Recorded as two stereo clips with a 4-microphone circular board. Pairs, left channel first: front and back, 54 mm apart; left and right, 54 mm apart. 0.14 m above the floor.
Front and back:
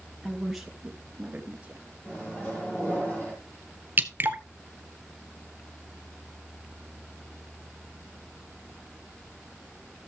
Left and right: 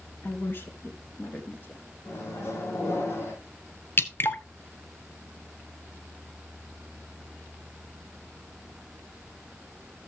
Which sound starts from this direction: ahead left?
A microwave, at 2.0 s.